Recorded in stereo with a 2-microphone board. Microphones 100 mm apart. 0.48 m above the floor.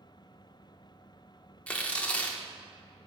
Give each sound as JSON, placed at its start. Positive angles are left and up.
{"t": 1.7, "sound": "tearing paper", "side_deg": 10, "distance_m": 0.7}